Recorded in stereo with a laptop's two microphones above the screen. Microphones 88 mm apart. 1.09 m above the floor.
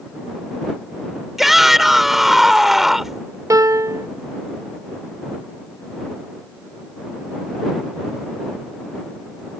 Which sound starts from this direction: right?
A piano, at 3.5 s.